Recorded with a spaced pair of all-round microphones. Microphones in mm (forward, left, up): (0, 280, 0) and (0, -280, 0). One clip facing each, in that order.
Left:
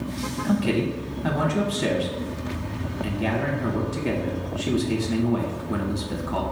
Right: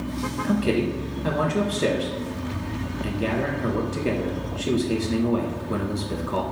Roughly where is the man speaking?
Centre.